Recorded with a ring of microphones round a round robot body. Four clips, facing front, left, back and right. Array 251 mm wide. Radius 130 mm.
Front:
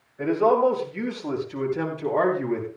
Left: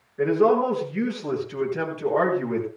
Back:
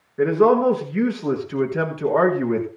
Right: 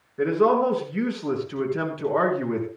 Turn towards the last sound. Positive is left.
turn(degrees=-170)